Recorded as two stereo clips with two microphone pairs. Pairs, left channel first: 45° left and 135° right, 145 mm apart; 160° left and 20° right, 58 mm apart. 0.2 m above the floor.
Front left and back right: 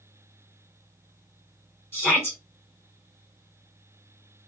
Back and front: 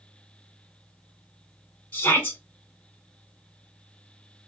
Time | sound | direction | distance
1.9 | a shout | 110° left | 2.5 m